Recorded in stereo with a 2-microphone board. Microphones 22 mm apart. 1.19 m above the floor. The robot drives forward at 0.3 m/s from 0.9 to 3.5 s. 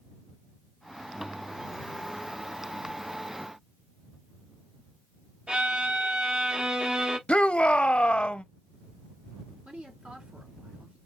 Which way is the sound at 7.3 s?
50° left (ahead or behind).